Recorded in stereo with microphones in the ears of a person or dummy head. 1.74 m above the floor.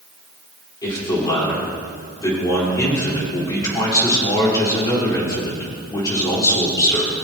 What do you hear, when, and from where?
0.8 s a man speaking: 20° left (ahead or behind), 4.5 m